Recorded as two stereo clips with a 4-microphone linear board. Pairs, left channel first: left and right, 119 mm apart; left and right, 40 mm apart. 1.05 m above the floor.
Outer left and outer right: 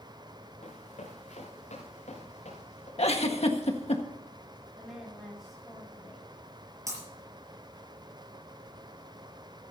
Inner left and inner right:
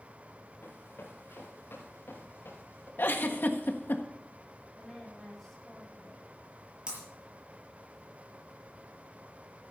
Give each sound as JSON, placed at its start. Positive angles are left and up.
{"t": 0.6, "sound": "running footsteps", "side_deg": 75, "distance_m": 4.5}
{"t": 3.0, "sound": "a giggle", "side_deg": 60, "distance_m": 1.5}
{"t": 4.8, "sound": "a woman speaking", "side_deg": 0, "distance_m": 8.0}
{"t": 6.9, "sound": "breaking glass", "side_deg": -25, "distance_m": 6.0}